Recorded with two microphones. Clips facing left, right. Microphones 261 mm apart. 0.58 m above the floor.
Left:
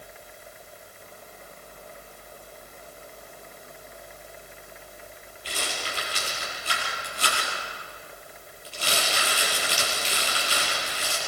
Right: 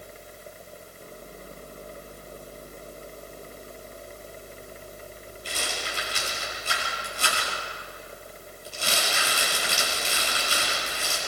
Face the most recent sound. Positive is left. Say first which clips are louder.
# even
turn(degrees=-50)  # may be behind; listen again after turning